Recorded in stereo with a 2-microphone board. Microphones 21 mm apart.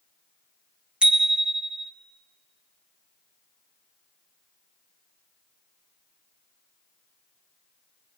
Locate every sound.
1.0 s a bicycle bell: 75° right (ahead or behind), 2 m